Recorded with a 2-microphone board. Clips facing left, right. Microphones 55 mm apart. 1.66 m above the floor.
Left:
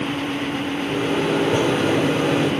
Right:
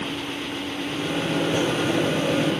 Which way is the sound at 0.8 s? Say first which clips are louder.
Left 5 dB; 80° left.